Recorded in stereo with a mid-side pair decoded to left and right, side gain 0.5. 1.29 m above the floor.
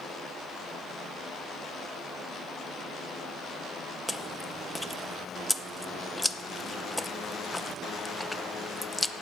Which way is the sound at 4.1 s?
15° left.